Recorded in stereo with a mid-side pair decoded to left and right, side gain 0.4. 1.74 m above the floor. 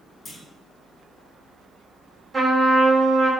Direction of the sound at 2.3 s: 30° right.